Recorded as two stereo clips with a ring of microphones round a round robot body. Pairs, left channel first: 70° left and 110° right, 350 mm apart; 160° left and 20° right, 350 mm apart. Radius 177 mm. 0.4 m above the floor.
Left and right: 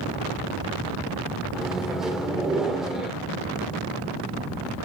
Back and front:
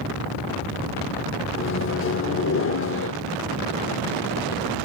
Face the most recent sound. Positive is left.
turn(degrees=160)